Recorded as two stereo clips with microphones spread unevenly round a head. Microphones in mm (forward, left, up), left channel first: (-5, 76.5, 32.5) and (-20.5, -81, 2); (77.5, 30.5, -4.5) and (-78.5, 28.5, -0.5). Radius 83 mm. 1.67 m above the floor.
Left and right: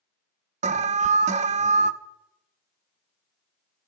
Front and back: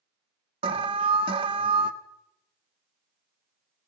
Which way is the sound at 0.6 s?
125° right.